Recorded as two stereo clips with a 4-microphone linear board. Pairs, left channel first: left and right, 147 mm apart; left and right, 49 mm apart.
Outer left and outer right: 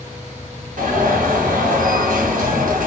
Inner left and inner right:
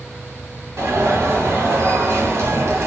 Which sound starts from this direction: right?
An alarm, at 0.8 s.